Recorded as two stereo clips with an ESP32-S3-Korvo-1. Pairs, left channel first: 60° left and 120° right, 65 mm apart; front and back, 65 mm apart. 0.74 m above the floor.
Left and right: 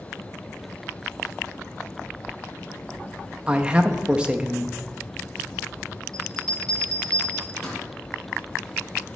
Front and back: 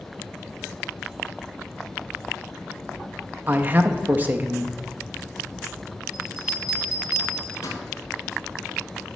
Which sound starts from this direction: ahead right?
A bell, at 6.1 s.